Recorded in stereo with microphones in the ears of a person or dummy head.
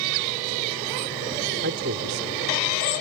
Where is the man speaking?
60° right (ahead or behind).